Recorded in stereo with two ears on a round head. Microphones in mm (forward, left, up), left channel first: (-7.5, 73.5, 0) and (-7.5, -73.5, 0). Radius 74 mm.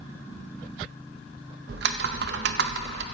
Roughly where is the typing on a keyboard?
Right.